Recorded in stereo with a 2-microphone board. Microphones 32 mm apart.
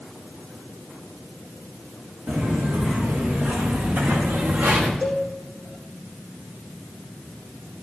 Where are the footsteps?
70° right (ahead or behind), 4.5 m; by 4.9 s 80° right, 3.5 m.